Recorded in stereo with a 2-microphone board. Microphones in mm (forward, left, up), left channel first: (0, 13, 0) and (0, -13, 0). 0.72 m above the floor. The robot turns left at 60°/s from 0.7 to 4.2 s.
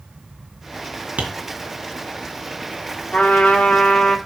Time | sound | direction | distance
1.2 | tapping | 65° right (ahead or behind) | 2.5 m
3.1 | a trumpet | 110° left | 1.9 m